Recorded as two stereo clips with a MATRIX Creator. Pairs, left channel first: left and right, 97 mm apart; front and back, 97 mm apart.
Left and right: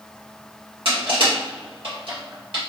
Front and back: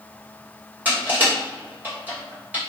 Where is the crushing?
110° right, 1.5 m.